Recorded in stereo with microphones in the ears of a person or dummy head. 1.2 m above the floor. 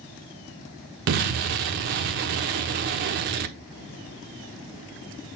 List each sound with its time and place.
1.1 s an explosion: 45° right (ahead or behind), 1.0 m